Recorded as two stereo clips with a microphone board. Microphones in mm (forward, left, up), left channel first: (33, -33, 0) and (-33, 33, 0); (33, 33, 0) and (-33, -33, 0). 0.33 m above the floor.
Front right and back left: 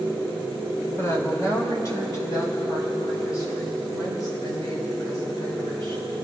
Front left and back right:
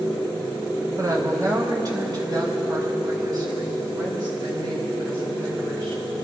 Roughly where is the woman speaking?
Right.